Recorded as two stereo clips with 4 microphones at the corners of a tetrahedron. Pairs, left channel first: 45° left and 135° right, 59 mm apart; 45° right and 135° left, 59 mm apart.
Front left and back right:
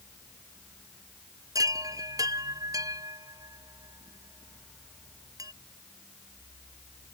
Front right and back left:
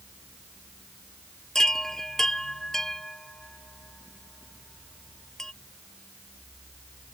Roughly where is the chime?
Behind right.